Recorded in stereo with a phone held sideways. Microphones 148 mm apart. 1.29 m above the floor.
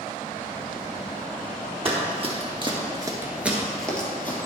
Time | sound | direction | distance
1.9 | running footsteps | 40° right (ahead or behind) | 2.5 m